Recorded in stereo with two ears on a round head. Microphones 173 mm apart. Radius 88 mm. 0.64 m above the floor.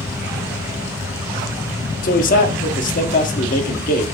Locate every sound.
2.0 s a man speaking: 45° left (ahead or behind), 1.5 m